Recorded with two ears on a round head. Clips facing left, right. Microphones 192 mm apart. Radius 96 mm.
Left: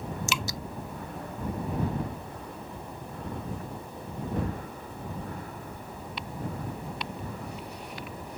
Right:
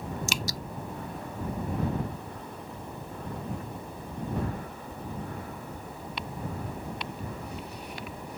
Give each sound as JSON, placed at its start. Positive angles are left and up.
{"t": 0.3, "sound": "dripping", "side_deg": -35}